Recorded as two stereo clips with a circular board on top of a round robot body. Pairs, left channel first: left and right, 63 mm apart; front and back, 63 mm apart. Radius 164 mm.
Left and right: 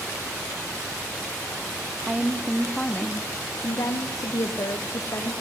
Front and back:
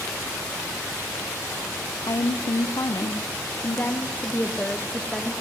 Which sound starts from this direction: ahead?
A woman speaking, at 2.1 s.